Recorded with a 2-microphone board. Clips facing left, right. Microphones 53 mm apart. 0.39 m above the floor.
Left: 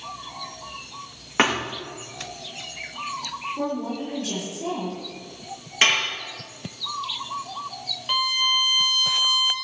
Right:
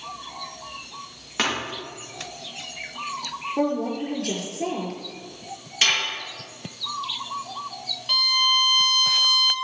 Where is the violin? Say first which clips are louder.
Right 1 dB; 20° left (ahead or behind), 1.4 m.